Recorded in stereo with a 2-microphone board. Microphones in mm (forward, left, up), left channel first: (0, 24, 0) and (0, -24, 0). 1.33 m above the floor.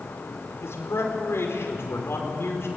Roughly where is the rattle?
I don't hear a rattle.